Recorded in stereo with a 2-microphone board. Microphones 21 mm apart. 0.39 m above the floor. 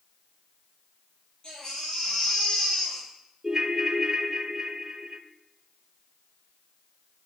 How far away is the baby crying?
About 10 m.